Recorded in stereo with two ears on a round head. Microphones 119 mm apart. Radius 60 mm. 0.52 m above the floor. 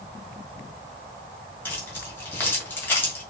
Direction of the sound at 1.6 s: 15° left (ahead or behind).